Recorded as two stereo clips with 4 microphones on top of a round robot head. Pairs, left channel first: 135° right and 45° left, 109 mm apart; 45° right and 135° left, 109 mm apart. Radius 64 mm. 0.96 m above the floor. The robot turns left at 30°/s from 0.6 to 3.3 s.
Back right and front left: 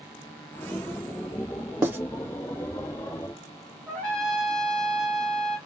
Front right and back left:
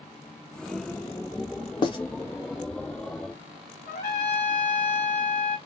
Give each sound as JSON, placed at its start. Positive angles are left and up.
{"t": 1.8, "sound": "writing", "azimuth_deg": -15, "distance_m": 0.8}
{"t": 3.9, "sound": "a trumpet", "azimuth_deg": -50, "distance_m": 1.3}